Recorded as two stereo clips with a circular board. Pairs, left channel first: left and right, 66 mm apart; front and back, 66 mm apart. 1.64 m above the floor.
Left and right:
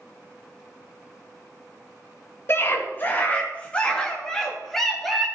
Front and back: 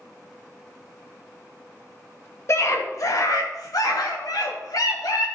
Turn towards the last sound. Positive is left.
turn(degrees=0)